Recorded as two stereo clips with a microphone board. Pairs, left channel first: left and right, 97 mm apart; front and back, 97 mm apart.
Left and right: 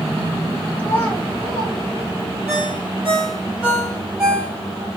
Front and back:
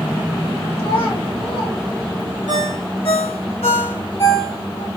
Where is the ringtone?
5° right, 2.0 m.